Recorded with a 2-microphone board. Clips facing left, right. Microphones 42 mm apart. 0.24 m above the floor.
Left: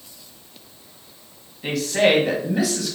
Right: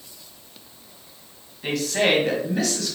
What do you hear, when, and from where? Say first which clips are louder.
1.6 s a woman speaking: left 3 dB; centre (ahead or behind), 1.9 m; by 3.0 s 15° left (ahead or behind), 1.5 m